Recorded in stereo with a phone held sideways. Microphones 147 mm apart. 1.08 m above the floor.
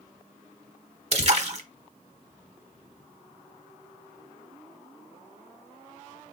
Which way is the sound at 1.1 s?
45° right (ahead or behind).